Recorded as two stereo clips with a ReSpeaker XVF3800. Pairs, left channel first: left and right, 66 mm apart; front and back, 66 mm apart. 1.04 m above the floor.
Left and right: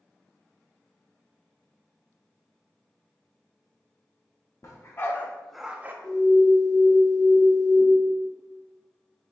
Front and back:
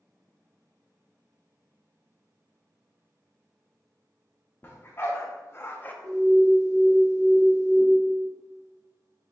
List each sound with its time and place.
4.6 s a dog barking: 50° left, 0.9 m; by 5.9 s 50° right, 0.5 m
6.0 s an alarm: 165° left, 1.2 m